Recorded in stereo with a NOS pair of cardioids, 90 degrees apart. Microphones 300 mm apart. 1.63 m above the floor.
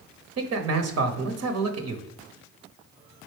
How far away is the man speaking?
About 0.8 m.